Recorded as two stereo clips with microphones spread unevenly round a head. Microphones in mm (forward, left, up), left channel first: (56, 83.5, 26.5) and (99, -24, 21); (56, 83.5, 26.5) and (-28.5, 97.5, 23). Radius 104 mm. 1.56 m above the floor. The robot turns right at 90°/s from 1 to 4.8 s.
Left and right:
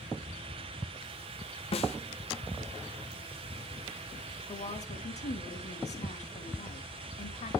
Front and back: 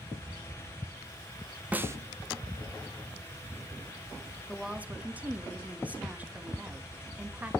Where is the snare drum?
100° left, 0.9 m; by 2.0 s 120° left, 0.9 m.